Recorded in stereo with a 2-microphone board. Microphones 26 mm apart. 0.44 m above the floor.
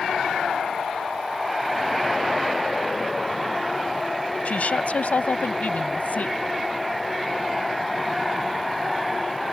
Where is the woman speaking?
65° left (ahead or behind); by 6.4 s 75° left (ahead or behind).